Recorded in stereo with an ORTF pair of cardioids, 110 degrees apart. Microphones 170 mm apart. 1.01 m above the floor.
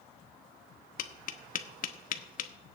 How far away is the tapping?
About 0.9 m.